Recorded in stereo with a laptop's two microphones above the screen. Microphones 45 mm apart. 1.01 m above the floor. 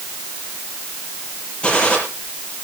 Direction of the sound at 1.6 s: 25° left (ahead or behind).